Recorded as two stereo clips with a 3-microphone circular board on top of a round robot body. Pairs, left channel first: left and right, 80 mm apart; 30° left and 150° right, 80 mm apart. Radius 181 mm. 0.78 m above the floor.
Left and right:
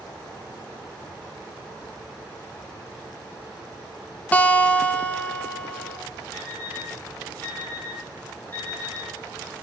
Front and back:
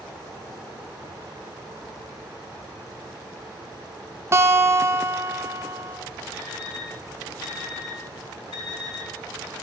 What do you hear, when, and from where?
4.3 s a guitar: 160° left, 1.5 m
6.3 s an alarm clock: 25° left, 7 m